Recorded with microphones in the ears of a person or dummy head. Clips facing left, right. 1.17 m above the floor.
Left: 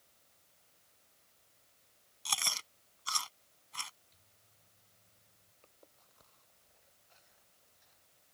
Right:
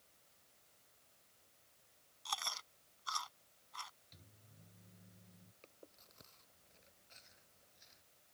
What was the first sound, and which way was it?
Chewing, 40° left (ahead or behind).